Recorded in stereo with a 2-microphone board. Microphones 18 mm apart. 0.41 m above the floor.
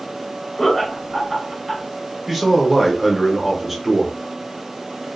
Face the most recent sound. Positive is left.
turn(degrees=-10)  # may be behind; listen again after turning